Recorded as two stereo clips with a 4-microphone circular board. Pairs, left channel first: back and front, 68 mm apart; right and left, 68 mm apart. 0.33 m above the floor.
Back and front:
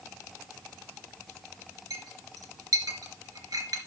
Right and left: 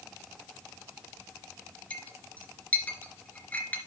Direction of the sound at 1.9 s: 20° right.